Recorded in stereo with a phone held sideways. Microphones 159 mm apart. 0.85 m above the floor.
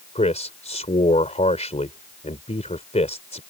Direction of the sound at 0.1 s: 45° left (ahead or behind).